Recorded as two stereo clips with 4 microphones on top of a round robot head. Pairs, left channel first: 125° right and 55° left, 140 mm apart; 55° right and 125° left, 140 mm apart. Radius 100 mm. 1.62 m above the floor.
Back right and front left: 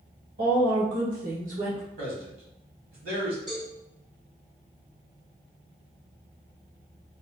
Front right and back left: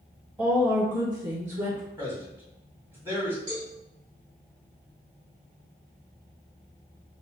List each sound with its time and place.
0.4 s a woman speaking: 45° left, 1.2 m; by 1.8 s 110° left, 0.6 m
2.0 s a man speaking: 50° left, 1.3 m
3.5 s a cowbell: 145° left, 1.1 m